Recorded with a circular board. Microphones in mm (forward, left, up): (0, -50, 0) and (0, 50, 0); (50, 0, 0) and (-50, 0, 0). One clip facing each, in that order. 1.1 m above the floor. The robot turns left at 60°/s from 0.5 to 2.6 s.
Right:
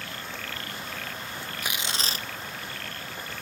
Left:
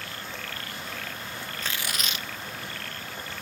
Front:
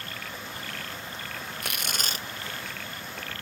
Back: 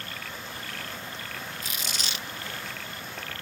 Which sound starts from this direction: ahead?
Tearing paper, at 1.6 s.